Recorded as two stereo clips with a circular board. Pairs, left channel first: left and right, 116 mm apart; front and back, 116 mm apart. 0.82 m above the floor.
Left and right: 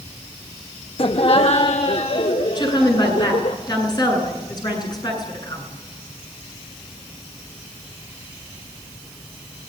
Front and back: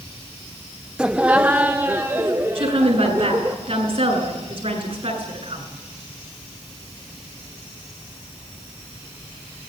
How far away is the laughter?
About 0.7 m.